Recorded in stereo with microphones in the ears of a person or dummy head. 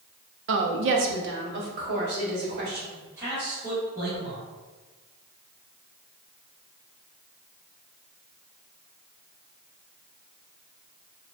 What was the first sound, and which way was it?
A woman speaking, 60° right (ahead or behind).